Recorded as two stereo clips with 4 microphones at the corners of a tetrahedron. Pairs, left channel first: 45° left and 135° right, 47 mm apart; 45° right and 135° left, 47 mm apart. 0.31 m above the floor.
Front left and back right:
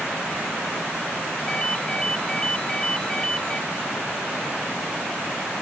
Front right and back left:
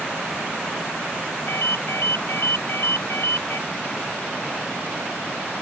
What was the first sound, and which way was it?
A ringtone, 25° right.